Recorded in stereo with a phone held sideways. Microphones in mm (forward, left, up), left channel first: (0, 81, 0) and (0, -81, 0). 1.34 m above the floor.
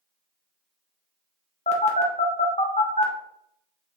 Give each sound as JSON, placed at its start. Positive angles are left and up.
{"t": 1.7, "sound": "a phone buzzing", "side_deg": 45, "distance_m": 0.6}